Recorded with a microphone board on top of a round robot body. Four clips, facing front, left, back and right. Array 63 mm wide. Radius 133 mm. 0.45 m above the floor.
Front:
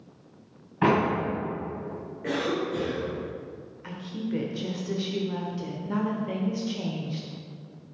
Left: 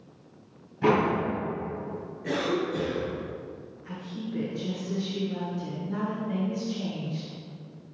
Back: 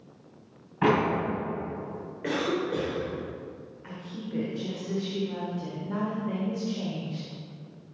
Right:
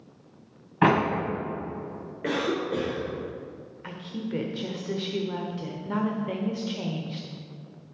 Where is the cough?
110° right, 2.5 m.